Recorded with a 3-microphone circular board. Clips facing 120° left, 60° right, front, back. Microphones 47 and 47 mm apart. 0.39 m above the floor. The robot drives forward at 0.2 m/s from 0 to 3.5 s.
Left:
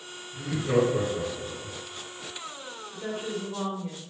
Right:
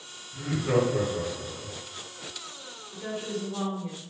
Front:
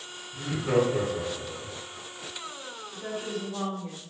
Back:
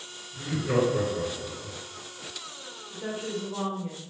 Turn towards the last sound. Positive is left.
turn(degrees=175)